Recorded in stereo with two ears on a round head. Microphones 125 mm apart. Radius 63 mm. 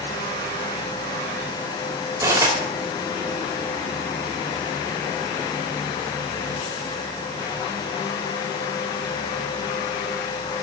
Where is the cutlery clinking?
20° right (ahead or behind), 2.5 m.